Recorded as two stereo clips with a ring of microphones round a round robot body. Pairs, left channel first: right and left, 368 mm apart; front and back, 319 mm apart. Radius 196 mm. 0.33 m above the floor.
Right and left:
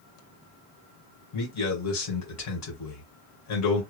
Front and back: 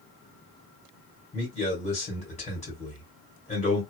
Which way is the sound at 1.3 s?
65° right.